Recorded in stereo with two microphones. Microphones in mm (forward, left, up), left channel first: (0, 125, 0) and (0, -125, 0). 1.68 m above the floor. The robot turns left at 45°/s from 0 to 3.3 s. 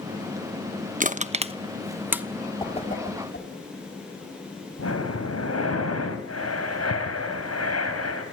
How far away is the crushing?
About 0.9 m.